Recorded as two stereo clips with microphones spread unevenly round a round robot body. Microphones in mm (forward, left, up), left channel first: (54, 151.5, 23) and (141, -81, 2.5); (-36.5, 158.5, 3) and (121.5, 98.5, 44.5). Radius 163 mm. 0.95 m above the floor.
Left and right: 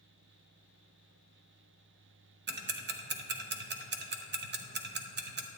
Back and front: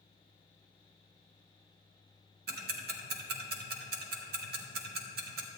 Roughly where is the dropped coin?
No dropped coin in this recording.